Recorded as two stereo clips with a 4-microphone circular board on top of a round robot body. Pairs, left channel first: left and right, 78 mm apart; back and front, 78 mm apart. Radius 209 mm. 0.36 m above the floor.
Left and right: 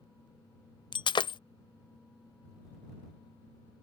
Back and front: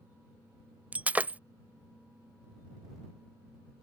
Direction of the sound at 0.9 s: 70° left.